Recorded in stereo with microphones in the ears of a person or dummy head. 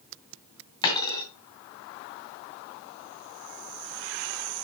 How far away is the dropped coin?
About 2 m.